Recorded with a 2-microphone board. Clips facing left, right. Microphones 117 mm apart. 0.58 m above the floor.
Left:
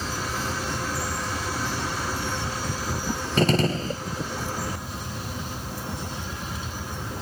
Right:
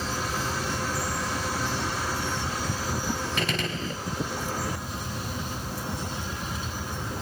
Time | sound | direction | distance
3.4 | a gunshot | 40° left (ahead or behind) | 1.0 m